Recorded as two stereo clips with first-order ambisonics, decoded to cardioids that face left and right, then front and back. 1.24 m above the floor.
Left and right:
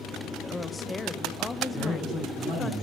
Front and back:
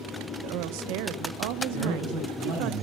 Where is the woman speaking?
170° left, 0.6 m.